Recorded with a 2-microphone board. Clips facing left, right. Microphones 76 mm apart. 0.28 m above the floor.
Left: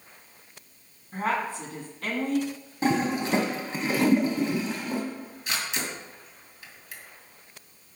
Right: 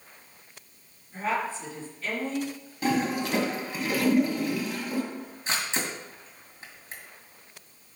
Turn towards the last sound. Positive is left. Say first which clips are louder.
# right 1 dB
turn(degrees=-35)  # may be behind; listen again after turning